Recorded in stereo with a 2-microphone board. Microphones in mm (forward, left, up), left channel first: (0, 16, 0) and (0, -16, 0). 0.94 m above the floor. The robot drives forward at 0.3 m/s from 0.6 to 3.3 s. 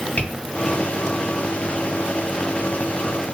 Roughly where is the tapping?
Left.